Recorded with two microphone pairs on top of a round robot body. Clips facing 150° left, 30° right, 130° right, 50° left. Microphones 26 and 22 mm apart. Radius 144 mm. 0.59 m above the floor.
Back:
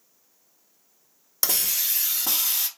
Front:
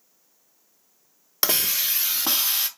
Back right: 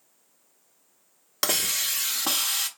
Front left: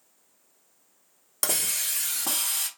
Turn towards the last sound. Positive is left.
turn(degrees=-75)